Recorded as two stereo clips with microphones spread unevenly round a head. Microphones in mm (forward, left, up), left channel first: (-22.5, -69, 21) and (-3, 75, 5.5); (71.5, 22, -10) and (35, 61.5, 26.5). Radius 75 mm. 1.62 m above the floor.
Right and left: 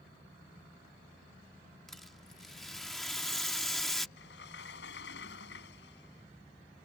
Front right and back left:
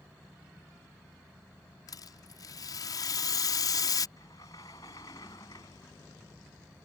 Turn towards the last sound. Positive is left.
turn(degrees=-105)